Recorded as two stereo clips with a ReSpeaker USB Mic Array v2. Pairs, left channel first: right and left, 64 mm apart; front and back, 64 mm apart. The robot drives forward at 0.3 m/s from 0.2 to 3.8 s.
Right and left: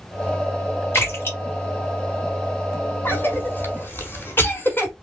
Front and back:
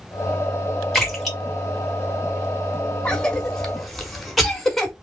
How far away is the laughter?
I don't hear laughter.